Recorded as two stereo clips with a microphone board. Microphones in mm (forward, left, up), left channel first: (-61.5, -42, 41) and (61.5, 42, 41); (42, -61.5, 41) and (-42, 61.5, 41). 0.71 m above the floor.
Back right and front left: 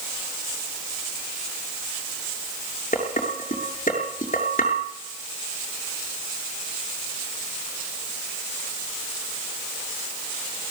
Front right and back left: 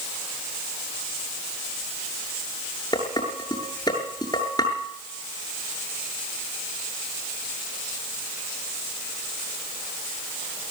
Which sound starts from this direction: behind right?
Dishes clattering, at 2.9 s.